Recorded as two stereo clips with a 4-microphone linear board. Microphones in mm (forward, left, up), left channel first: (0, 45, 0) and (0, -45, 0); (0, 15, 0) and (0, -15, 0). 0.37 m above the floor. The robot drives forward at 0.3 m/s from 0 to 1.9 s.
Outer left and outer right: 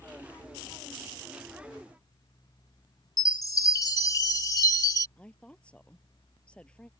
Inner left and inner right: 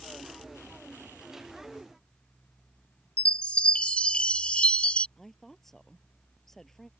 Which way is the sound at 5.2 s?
10° left (ahead or behind).